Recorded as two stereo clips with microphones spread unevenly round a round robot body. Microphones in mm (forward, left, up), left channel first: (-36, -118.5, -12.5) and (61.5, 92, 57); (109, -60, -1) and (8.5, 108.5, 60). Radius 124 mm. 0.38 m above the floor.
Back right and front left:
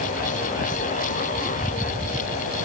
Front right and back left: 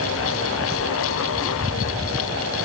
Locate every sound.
Only background noise.